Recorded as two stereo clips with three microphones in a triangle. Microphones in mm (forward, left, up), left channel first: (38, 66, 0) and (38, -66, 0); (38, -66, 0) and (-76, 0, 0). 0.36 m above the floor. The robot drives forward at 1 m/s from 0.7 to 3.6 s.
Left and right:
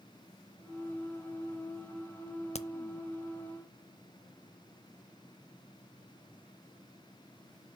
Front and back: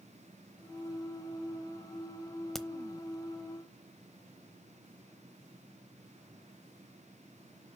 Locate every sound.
2.5 s a crack: 55° left, 0.7 m; by 2.7 s 65° left, 0.6 m